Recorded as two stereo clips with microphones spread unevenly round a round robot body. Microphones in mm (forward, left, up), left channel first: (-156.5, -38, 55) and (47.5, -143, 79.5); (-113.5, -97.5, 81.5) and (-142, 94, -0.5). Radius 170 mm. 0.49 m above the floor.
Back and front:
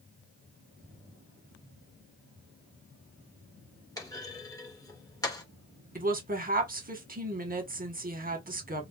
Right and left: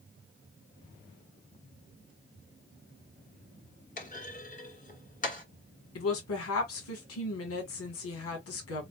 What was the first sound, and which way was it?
A clunk, 140° right.